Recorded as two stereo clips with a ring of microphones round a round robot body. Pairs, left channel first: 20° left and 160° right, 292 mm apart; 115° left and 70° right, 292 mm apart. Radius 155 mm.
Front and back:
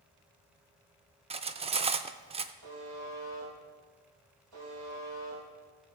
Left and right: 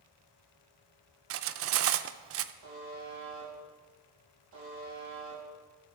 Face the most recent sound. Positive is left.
turn(degrees=-120)